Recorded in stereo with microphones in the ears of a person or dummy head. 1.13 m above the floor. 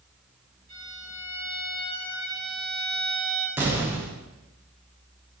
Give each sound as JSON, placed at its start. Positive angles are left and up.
{"t": 0.7, "sound": "a violin", "side_deg": -25, "distance_m": 1.9}
{"t": 3.6, "sound": "an explosion", "side_deg": -10, "distance_m": 0.6}